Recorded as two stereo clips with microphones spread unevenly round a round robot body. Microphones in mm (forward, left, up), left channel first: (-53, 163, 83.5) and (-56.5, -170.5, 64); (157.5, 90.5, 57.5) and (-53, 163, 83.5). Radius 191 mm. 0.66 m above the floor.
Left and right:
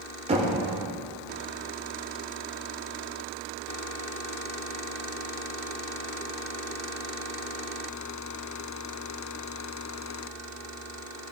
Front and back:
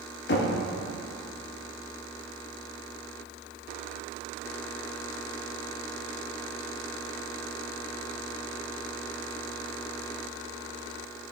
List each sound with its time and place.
0.3 s knocking: 25° right, 1.4 m